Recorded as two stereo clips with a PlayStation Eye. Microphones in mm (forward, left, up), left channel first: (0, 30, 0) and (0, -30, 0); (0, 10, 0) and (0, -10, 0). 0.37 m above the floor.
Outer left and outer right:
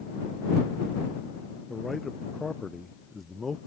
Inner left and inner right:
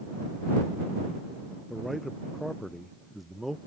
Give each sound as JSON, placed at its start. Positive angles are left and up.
{"t": 1.7, "sound": "a man speaking", "side_deg": 0}